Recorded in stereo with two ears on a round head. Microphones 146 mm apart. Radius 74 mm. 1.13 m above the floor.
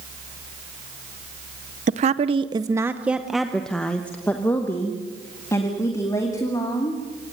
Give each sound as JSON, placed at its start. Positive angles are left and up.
{"t": 1.9, "sound": "a woman speaking", "side_deg": -45, "distance_m": 0.7}